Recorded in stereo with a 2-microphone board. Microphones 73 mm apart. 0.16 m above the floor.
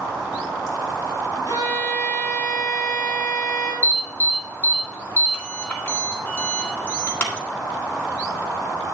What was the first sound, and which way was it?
A violin, 70° left (ahead or behind).